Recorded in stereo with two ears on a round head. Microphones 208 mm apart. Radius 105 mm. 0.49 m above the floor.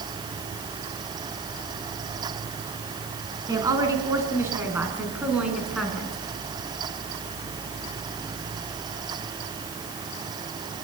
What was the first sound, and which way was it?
A woman speaking, 15° right (ahead or behind).